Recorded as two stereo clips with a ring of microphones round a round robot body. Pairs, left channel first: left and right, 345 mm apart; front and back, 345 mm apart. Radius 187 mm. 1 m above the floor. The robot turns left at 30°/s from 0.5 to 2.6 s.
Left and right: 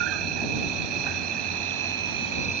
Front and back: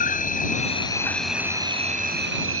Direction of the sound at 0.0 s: 65° right.